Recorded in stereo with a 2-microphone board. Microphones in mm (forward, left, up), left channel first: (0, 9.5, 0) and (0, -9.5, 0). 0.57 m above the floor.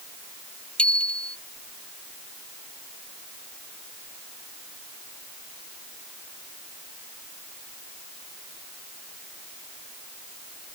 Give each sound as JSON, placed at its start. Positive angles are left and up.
{"t": 0.8, "sound": "a bicycle bell", "side_deg": 70}